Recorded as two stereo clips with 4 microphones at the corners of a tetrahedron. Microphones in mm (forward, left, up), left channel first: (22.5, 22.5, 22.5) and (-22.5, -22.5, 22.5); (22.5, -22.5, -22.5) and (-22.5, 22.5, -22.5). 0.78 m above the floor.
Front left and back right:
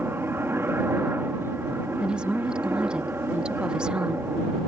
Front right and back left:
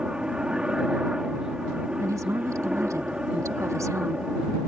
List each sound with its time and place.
0.0 s a helicopter: 155° right
2.0 s a woman speaking: 150° left